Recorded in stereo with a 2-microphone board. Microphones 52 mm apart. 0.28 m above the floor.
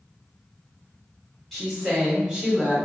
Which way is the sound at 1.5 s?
5° left (ahead or behind).